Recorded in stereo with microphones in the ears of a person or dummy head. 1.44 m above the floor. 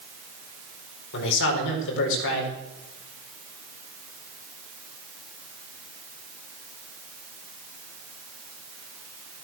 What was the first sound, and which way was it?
A man speaking, 70° left (ahead or behind).